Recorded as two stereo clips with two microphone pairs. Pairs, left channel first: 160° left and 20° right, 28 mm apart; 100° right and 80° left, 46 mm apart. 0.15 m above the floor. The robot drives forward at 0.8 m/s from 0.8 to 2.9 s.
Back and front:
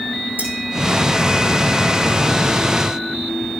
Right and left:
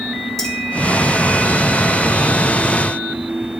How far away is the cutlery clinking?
About 6 m.